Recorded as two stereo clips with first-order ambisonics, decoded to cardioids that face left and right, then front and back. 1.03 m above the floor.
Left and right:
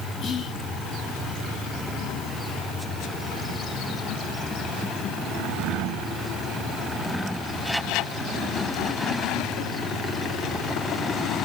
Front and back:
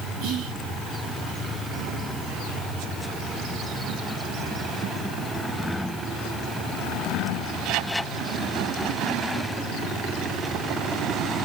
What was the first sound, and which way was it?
Whispering, 155° left.